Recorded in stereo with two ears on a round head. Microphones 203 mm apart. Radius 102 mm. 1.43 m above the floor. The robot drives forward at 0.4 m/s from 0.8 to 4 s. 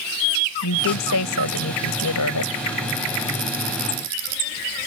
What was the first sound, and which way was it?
A woman speaking, 85° left.